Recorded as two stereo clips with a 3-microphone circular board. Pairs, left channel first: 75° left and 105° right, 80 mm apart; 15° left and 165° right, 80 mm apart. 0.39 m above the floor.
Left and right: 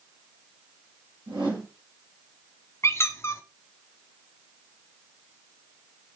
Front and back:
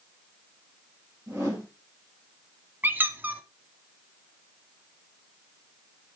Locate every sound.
1.3 s a whoosh: 105° right, 5 m
2.8 s a squeak: 130° left, 0.7 m